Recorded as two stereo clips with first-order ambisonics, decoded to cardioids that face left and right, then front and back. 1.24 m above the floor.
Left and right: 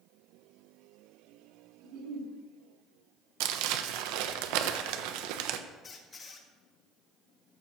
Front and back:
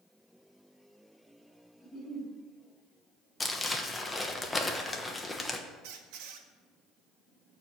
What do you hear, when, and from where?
1.8 s a giggle: 75° right, 6 m
3.4 s crumpling: 80° right, 1.0 m
5.8 s a squeak: 160° left, 1.4 m